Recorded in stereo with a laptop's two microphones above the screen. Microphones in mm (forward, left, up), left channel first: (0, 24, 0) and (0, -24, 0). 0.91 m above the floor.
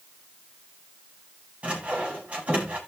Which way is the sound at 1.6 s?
25° right (ahead or behind).